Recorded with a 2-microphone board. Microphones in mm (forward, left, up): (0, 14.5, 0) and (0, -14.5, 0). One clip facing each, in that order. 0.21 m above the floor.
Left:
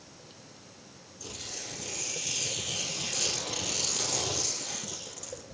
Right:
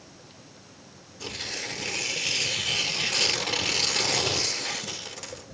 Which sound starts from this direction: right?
Tearing paper, at 1.2 s.